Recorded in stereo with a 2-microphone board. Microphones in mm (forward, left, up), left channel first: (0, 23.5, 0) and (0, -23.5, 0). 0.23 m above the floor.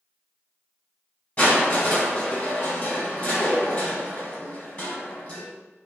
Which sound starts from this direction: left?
Crushing, at 1.4 s.